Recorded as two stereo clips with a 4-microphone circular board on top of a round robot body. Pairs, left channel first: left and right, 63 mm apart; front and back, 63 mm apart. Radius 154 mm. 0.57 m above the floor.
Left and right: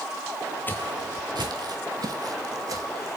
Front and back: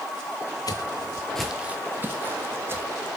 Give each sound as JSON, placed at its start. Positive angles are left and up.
{"t": 0.7, "sound": "footsteps", "azimuth_deg": 30, "distance_m": 0.9}